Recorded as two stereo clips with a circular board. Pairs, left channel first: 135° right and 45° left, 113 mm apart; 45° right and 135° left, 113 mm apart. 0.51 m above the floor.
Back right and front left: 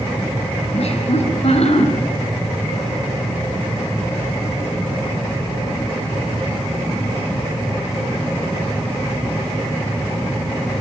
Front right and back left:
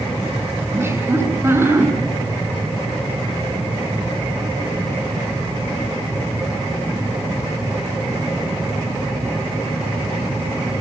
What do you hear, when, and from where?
0.7 s laughter: 155° right, 6.5 m